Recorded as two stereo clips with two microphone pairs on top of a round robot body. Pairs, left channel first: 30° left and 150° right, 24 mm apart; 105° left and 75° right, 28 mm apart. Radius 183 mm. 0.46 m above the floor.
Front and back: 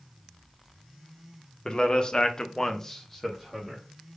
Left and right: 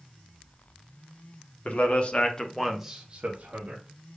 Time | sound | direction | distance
1.6 | a man speaking | 75° left | 1.3 m